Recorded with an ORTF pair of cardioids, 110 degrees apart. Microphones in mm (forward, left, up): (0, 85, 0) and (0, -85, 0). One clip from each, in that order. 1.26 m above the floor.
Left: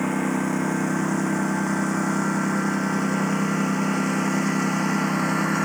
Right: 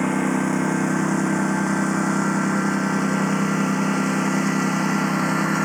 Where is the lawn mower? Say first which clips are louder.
Right 3 dB; 50° right; by 5.7 s 30° right.